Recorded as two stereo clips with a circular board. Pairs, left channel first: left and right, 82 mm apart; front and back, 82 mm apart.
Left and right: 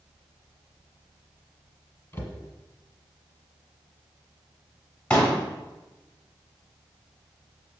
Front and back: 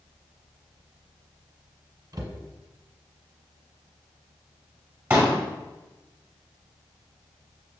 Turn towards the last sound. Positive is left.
turn(degrees=145)